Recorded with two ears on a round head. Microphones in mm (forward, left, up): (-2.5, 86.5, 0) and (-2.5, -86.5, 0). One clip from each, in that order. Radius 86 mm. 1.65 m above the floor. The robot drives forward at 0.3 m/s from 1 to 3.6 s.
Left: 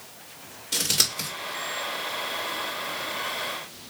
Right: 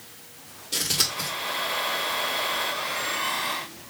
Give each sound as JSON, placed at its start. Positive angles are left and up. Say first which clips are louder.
{"t": 0.7, "sound": "scissors", "louder": "left 1 dB", "side_deg": 25, "distance_m": 2.0}